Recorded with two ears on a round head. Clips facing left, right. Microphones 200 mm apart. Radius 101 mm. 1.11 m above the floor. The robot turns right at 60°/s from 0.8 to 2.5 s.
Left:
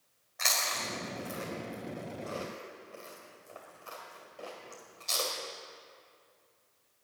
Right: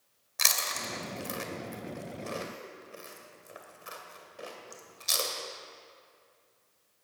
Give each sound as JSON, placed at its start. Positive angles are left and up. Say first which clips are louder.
{"t": 0.4, "sound": "chewing", "louder": "left 1 dB", "side_deg": -55, "distance_m": 2.0}